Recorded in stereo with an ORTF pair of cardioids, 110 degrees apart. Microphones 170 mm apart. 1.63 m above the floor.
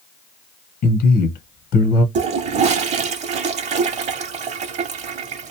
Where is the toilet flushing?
45° right, 0.6 m.